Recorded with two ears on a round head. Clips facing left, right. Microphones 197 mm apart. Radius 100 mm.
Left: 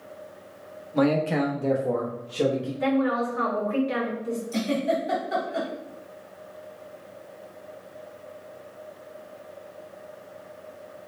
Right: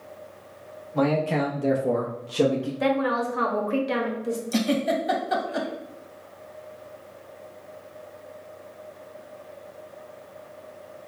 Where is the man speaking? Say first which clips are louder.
Left 1 dB; 25° left (ahead or behind), 0.9 m; by 2.7 s 60° right (ahead or behind), 1.0 m.